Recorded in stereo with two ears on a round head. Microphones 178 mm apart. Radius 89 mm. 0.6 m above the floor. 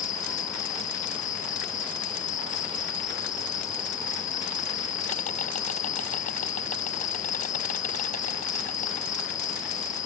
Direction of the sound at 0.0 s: 40° left (ahead or behind).